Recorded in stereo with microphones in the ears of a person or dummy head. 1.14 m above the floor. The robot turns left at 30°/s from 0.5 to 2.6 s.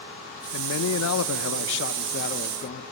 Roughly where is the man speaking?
Left.